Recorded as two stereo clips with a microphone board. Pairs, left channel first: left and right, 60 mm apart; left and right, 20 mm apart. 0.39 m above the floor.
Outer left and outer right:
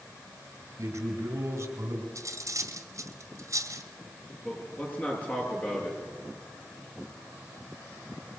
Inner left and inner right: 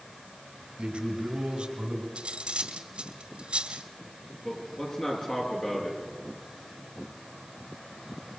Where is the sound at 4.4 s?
30° left (ahead or behind), 7 m.